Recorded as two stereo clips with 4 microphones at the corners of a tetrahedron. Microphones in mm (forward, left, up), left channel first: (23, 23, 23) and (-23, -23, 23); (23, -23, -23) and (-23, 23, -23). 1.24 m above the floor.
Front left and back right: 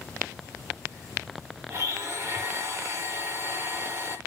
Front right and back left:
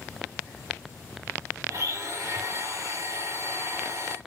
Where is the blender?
175° left, 4.5 m.